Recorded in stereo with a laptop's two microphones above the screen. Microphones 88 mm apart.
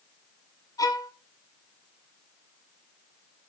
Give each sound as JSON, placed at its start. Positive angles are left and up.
{"t": 0.8, "sound": "a violin", "side_deg": 45, "distance_m": 2.5}